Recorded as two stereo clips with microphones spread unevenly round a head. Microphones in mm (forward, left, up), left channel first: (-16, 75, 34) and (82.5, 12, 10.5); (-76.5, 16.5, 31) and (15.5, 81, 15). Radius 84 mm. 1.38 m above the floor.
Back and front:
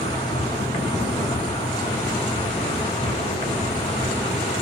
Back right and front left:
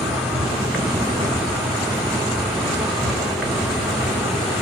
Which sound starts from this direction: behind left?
An insect, at 0.0 s.